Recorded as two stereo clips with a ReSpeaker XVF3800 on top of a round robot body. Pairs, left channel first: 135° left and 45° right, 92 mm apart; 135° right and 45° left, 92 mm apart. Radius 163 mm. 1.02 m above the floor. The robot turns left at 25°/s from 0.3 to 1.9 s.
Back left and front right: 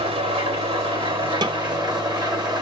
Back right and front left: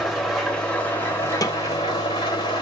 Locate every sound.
0.0 s an engine running: 45° right, 2.5 m; by 2.6 s 85° right, 2.5 m
1.4 s a snare drum: 85° right, 0.9 m; by 1.6 s 90° right, 0.9 m